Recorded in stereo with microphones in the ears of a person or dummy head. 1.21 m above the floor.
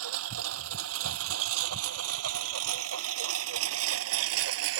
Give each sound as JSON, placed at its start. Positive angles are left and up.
{"t": 0.0, "sound": "a lawn mower", "side_deg": -85}